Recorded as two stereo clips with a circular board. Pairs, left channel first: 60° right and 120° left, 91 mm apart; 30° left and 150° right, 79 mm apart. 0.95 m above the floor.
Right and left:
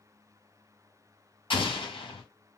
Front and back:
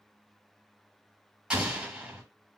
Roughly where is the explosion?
Right.